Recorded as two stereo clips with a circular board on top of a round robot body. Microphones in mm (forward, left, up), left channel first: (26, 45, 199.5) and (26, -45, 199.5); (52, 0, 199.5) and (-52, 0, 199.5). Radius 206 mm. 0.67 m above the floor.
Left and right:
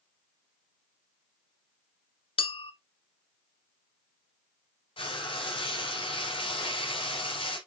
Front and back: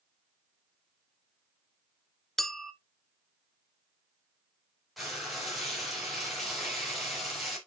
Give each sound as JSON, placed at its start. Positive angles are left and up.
{"t": 2.4, "sound": "a clink", "azimuth_deg": 85, "distance_m": 1.0}
{"t": 5.0, "sound": "frying", "azimuth_deg": 90, "distance_m": 4.5}